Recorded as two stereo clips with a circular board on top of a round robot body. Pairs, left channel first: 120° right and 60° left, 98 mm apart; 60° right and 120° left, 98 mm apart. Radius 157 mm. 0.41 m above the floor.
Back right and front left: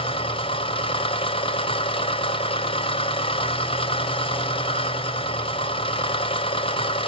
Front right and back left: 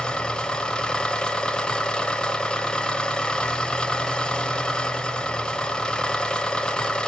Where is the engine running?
140° right, 1.6 m.